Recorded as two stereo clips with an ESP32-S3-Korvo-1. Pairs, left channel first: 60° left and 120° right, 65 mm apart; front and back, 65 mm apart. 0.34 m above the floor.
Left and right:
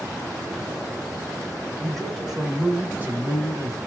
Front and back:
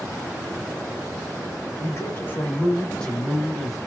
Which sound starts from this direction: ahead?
A man speaking, at 1.8 s.